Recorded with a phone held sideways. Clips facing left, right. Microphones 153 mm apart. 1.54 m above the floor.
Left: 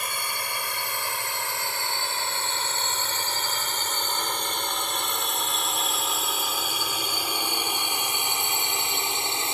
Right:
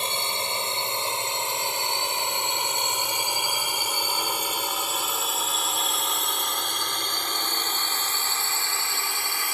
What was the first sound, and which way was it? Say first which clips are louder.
A drone: right 3 dB; 25° right (ahead or behind).